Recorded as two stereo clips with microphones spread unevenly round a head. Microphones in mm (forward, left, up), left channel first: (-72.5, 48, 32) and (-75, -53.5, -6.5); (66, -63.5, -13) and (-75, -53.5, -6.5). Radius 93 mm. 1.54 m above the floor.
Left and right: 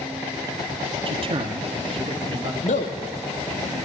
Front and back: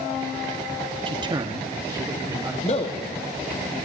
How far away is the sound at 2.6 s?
About 1.0 m.